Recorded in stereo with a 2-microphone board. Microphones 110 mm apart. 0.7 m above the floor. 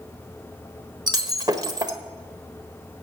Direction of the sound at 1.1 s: 40° right (ahead or behind).